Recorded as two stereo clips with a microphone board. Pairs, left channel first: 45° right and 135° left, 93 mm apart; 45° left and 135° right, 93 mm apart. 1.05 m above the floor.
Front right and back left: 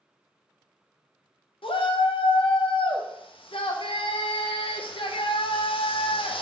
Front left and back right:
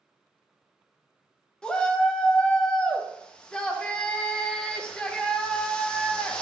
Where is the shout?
35° right, 0.5 m.